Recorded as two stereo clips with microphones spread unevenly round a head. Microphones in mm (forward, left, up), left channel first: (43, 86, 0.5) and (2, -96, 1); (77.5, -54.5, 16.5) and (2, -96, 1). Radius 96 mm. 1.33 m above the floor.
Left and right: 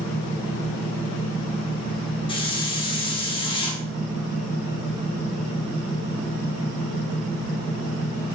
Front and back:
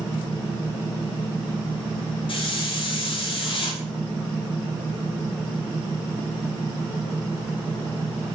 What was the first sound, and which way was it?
A hiss, 15° left.